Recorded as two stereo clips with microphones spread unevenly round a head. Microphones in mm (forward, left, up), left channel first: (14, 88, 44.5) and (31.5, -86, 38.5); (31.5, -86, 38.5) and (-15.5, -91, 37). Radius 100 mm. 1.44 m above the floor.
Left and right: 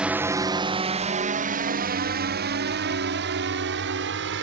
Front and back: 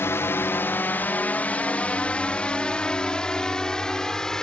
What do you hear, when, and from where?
0.0 s a drone: straight ahead; by 4.4 s 70° right